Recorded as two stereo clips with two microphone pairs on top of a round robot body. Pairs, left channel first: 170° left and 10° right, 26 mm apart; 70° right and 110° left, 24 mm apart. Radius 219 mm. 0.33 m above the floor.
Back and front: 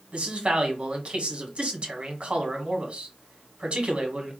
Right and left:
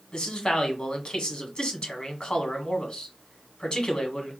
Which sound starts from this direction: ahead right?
A man speaking, at 0.1 s.